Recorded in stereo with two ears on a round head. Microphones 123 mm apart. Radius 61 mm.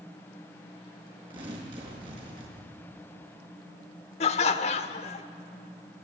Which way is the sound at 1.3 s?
35° right (ahead or behind).